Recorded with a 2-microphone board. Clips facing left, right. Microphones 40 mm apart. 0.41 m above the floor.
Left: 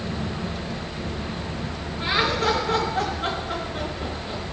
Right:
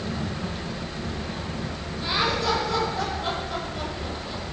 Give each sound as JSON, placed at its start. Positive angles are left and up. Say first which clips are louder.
{"t": 2.0, "sound": "laughter", "louder": "left 3 dB", "side_deg": 40, "distance_m": 6.5}